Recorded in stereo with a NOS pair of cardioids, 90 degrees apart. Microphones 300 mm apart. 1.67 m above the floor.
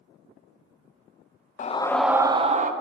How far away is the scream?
About 0.5 m.